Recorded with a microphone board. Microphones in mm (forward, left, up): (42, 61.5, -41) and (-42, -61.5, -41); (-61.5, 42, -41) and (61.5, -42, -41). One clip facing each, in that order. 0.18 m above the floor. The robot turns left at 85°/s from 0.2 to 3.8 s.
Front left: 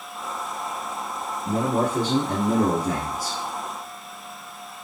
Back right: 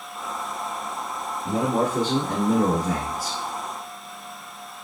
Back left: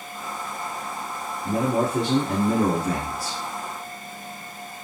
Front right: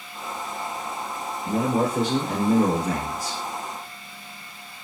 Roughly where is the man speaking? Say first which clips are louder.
Even, even; behind.